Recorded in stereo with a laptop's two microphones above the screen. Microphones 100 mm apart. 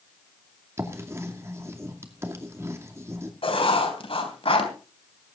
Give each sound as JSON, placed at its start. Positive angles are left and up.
{"t": 0.8, "sound": "writing", "side_deg": -25, "distance_m": 2.5}
{"t": 3.4, "sound": "writing", "side_deg": 70, "distance_m": 3.5}